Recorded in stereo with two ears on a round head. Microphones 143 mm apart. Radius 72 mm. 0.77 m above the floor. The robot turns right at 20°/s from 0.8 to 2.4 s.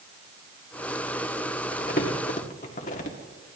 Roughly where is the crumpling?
Left.